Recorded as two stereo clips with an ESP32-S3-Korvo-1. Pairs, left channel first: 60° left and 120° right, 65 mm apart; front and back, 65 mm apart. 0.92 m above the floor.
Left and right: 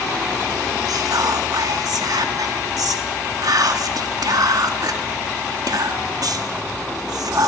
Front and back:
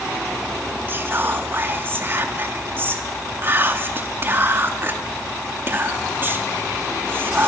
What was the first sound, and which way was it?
Whispering, 125° right.